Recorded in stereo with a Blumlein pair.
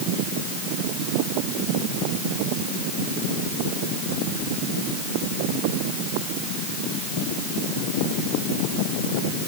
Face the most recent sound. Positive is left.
No sound to turn to.